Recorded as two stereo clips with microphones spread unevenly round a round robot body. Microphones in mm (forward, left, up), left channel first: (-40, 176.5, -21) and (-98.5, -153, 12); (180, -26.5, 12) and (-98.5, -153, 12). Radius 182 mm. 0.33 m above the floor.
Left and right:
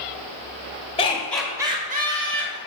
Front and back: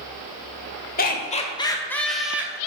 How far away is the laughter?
About 1.4 m.